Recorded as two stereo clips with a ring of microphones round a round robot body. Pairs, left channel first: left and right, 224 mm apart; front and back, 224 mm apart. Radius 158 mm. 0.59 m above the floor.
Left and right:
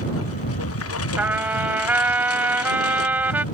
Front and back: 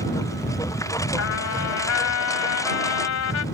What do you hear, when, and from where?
0.0 s a lawn mower: 75° left
1.2 s a trumpet: 10° right